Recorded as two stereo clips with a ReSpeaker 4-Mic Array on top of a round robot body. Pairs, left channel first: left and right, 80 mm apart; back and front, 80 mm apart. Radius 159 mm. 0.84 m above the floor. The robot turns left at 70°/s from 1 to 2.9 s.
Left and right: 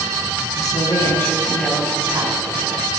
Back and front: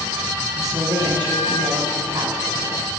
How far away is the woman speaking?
About 7.5 m.